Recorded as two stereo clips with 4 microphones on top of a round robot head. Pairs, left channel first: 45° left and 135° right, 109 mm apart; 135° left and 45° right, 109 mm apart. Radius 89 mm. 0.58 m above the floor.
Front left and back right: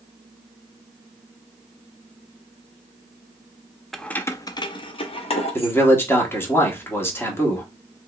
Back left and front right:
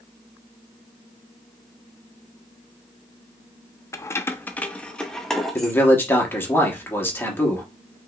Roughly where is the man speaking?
Left.